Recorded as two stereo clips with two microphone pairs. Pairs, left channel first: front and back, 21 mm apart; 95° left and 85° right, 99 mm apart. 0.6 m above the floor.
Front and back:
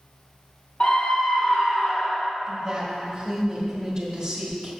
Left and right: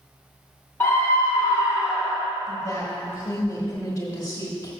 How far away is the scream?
About 1.4 m.